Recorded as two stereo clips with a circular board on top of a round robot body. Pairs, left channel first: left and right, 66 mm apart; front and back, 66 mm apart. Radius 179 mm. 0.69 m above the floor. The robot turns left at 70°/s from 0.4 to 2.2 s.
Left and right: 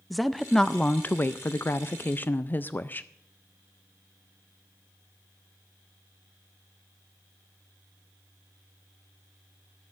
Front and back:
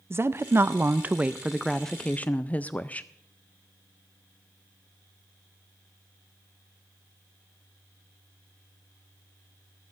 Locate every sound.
0.1 s a woman speaking: straight behind, 0.6 m; by 3.1 s 50° left, 0.6 m